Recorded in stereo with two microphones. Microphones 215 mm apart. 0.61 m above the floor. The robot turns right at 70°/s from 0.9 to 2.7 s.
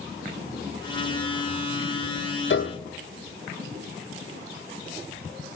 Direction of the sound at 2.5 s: 65° left (ahead or behind).